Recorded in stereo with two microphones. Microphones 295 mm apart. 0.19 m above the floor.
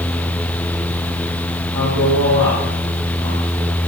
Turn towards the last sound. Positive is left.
turn(degrees=-70)  # may be behind; listen again after turning